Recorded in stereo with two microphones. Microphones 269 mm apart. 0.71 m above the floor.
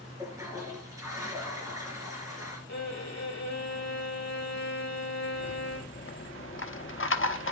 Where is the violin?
75° left (ahead or behind), 1.8 m.